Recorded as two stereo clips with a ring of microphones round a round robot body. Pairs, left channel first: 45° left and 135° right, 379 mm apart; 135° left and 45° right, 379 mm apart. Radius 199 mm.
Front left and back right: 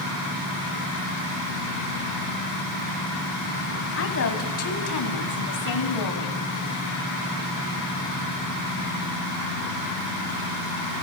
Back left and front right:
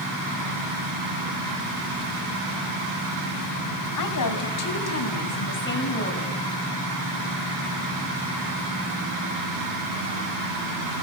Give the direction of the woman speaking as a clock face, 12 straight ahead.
9 o'clock.